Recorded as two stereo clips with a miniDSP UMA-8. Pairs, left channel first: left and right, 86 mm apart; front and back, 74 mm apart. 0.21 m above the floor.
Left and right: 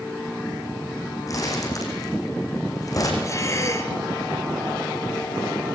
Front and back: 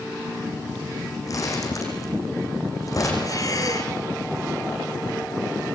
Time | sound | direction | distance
1.3 | crumpling | 40° left | 6 m
3.2 | breathing | 35° left | 3 m